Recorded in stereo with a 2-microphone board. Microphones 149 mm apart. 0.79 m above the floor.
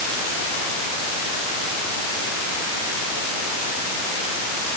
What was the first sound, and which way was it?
Only background noise.